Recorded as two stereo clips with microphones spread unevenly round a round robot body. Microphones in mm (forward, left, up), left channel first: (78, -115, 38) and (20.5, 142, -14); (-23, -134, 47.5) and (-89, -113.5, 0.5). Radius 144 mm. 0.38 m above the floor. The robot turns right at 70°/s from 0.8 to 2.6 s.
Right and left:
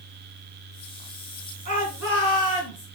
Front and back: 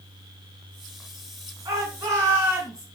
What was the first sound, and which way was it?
A shout, 160° left.